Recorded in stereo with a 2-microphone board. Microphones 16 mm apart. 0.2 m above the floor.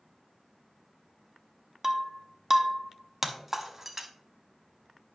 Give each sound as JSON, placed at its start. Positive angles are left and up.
{"t": 1.8, "sound": "breaking glass", "side_deg": -15, "distance_m": 0.7}